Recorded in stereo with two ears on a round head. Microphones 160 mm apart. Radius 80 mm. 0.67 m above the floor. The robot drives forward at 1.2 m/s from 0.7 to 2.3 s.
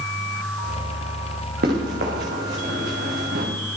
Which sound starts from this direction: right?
Running footsteps, at 1.6 s.